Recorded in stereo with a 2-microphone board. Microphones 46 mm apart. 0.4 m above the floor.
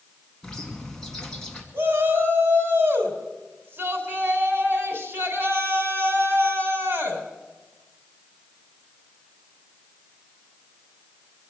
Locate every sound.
0.4 s a bird: 15° left (ahead or behind), 2.0 m
1.7 s a shout: 50° right (ahead or behind), 3.5 m